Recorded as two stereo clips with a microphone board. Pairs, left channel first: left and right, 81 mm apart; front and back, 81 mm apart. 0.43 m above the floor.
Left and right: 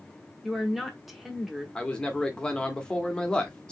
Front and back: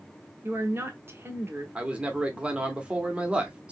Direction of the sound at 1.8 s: 140° left.